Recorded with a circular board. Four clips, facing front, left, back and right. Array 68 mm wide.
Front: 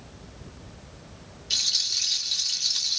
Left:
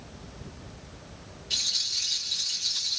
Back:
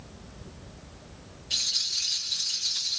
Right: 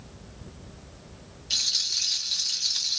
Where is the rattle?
40° right, 1.4 m.